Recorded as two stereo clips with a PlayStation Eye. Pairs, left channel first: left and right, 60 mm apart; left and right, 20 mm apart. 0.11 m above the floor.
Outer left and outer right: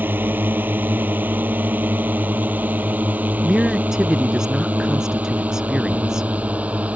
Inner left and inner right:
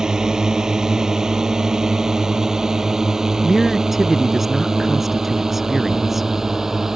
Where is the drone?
35° right (ahead or behind); by 7.0 s 25° right (ahead or behind).